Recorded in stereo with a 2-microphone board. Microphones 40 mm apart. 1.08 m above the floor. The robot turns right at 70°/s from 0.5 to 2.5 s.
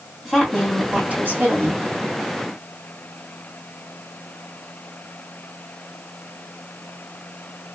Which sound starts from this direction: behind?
A woman speaking, at 0.2 s.